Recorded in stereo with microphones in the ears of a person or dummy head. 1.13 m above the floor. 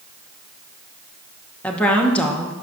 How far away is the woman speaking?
About 0.9 m.